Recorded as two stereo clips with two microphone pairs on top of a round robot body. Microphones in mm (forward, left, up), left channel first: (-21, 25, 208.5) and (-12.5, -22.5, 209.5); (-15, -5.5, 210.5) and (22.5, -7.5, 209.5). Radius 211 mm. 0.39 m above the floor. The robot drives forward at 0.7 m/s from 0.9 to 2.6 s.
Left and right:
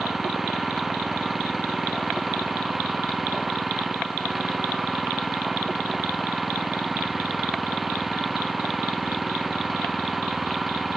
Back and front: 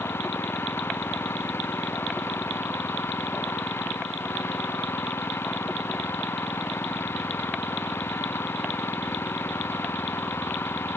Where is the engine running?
165° right; by 11.0 s 170° right.